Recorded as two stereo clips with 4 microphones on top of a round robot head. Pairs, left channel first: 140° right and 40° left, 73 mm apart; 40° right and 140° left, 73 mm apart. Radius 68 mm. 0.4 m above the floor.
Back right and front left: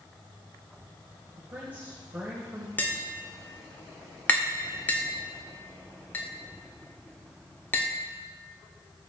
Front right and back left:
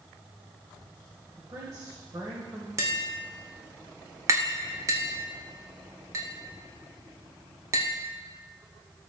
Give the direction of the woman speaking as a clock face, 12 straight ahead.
9 o'clock.